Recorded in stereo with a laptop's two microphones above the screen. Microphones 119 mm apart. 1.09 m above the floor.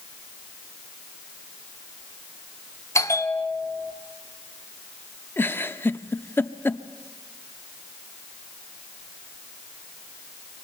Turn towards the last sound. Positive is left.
turn(degrees=20)  # may be behind; listen again after turning